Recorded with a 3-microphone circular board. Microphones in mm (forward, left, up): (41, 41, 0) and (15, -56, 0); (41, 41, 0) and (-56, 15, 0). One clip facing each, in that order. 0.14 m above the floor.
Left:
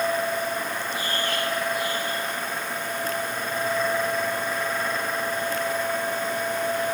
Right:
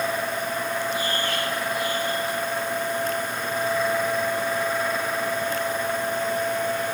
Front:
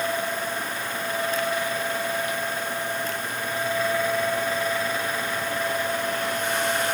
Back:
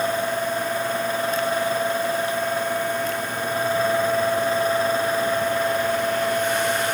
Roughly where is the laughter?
No laughter in this recording.